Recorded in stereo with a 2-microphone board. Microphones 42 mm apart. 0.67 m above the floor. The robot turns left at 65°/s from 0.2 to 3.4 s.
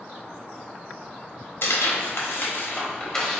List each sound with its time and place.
1.6 s tearing paper: 65° left (ahead or behind), 1.2 m; by 3.4 s centre (ahead or behind), 1.2 m